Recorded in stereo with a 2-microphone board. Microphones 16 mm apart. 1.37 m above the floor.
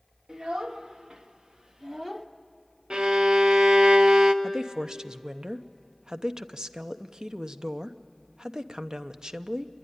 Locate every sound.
0.3 s a child speaking: 55° right (ahead or behind), 1.9 m; by 2.3 s 10° right (ahead or behind), 0.8 m
2.9 s a violin: 55° right (ahead or behind), 0.7 m
4.4 s a woman speaking: 45° right (ahead or behind), 0.6 m